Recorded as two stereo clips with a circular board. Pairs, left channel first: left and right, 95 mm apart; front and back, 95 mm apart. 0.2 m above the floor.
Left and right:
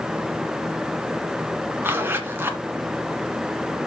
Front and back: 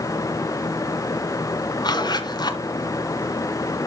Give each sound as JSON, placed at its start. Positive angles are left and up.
{"t": 1.8, "sound": "a zipper", "azimuth_deg": -25, "distance_m": 1.9}